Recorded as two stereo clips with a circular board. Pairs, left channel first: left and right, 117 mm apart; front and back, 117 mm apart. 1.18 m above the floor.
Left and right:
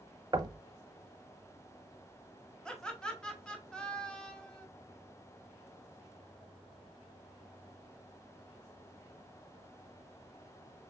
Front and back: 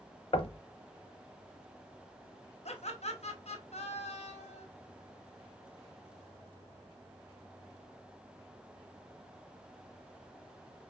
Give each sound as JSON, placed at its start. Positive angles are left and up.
{"t": 0.3, "sound": "knocking", "azimuth_deg": -35, "distance_m": 0.6}
{"t": 2.6, "sound": "laughter", "azimuth_deg": 10, "distance_m": 1.1}